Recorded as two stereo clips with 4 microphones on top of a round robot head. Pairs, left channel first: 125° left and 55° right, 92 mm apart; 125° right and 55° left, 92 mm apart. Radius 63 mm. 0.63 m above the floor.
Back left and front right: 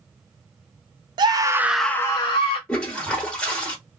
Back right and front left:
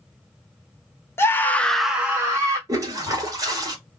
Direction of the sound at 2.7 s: 50° left.